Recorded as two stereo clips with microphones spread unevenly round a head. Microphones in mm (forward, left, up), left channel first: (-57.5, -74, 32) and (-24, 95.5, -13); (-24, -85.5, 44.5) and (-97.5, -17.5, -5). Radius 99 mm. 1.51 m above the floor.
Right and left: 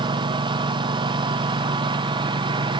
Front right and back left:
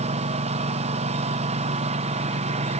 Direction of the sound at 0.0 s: 140° left.